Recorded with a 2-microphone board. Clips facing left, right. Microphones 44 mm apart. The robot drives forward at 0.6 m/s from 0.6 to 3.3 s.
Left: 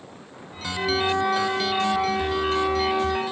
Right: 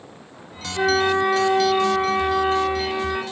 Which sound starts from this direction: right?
A flute, at 0.8 s.